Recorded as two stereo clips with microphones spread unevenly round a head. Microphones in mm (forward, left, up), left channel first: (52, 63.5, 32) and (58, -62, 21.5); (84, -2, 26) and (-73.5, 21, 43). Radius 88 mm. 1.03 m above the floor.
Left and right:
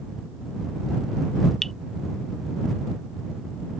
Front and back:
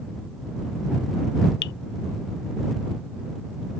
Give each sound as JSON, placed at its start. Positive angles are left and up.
{"t": 1.6, "sound": "dripping", "azimuth_deg": 5}